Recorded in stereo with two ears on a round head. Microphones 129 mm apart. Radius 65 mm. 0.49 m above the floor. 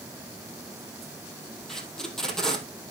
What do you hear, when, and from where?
1.7 s tape being pulled: 5° left (ahead or behind), 2.5 m